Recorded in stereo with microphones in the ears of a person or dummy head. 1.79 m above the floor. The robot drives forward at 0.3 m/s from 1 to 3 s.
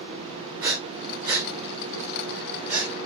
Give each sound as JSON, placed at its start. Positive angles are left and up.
{"t": 0.6, "sound": "breathing", "side_deg": -20, "distance_m": 0.9}